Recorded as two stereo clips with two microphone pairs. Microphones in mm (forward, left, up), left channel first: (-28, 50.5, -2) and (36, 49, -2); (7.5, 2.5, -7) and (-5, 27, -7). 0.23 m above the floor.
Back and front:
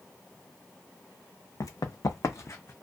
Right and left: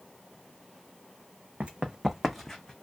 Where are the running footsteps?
155° left, 0.6 m; by 2.7 s 130° right, 0.6 m.